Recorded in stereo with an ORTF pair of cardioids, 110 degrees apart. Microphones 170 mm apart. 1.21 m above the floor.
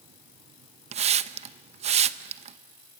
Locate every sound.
0.9 s a hiss: 40° right, 0.9 m